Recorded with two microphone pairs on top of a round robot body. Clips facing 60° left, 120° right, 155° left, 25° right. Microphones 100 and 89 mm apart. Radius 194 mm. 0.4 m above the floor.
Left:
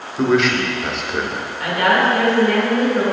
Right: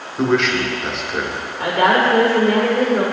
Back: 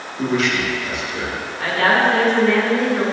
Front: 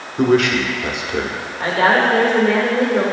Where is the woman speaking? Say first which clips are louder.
Right 1 dB, front 2 dB; 90° right, 2 m.